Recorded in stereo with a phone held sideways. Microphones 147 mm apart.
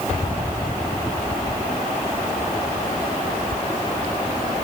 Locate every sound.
Only background noise.